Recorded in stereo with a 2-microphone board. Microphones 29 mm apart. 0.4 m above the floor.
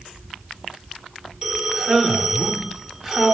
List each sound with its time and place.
1.4 s a man speaking: 20° right (ahead or behind), 0.8 m